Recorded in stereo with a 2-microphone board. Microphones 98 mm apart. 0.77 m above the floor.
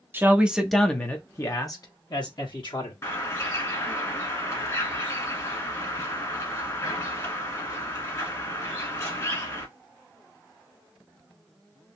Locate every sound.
0.1 s a man speaking: 25° right (ahead or behind), 0.8 m; by 2.9 s 60° left (ahead or behind), 1.6 m
3.0 s a bird: 35° left (ahead or behind), 1.4 m